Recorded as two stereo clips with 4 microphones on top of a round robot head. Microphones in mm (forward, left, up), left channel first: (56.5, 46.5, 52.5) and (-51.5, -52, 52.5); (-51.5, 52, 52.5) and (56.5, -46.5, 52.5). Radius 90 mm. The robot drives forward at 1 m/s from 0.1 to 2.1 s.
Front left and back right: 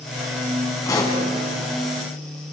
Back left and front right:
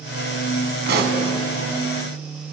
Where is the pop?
25° right, 4 m; by 1.2 s 30° right, 3.5 m.